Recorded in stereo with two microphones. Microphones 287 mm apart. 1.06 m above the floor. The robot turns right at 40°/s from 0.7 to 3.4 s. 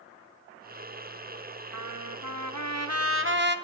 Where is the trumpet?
105° right, 1.0 m; by 3.6 s 40° right, 1.0 m.